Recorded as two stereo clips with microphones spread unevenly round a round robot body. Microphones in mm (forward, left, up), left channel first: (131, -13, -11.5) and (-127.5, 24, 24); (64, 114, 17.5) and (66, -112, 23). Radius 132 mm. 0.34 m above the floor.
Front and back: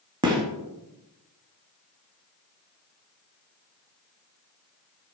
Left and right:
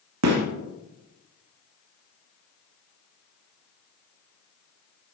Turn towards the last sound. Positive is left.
turn(degrees=-110)